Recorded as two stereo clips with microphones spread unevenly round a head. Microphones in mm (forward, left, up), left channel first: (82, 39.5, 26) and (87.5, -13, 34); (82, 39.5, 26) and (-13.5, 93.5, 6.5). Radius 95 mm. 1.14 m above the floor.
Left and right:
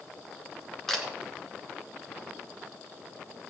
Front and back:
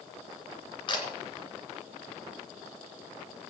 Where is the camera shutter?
10° left, 3.5 m.